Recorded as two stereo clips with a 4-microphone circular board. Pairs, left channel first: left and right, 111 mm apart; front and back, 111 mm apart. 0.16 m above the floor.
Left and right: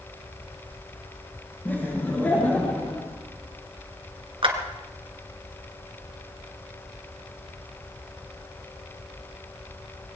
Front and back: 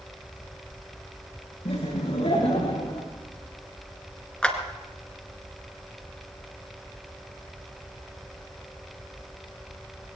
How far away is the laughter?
About 7 m.